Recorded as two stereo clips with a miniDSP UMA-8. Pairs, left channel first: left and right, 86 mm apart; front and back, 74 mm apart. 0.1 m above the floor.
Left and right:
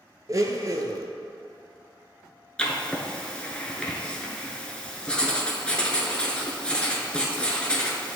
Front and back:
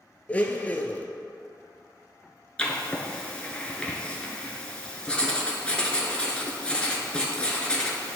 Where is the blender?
65° right, 0.6 m.